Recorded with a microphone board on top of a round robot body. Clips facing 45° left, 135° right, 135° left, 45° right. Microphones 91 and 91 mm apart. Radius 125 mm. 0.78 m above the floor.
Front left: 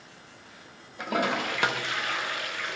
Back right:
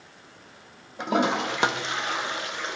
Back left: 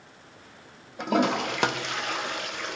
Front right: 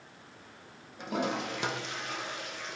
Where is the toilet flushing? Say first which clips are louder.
Back right 4 dB, back left 8 dB; 160° left, 0.5 m.